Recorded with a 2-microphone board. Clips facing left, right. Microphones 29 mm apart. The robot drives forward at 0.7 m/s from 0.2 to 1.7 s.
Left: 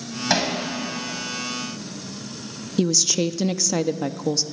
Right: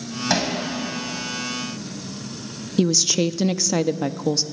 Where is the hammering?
10° left (ahead or behind), 4.5 m.